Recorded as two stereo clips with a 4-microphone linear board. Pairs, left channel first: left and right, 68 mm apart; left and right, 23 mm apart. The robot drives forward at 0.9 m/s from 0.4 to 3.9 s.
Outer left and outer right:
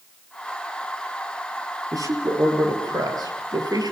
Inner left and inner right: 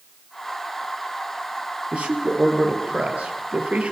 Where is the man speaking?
60° right (ahead or behind), 5 m; by 3.9 s 70° right (ahead or behind), 4.5 m.